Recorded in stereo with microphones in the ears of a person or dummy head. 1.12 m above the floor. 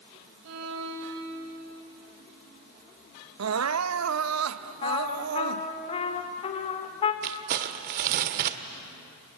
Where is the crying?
85° right, 0.8 m.